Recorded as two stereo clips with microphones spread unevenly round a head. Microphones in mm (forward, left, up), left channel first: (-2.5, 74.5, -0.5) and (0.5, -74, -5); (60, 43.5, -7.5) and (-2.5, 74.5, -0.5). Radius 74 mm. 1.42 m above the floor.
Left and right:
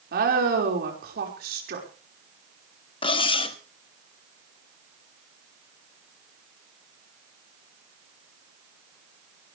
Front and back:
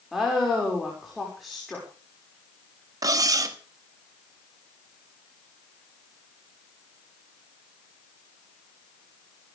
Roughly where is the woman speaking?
Behind right.